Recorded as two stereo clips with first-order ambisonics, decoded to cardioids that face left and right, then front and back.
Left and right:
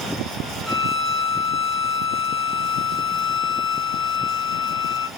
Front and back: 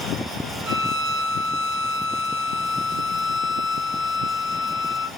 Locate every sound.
0.7 s a violin: 175° right, 1.1 m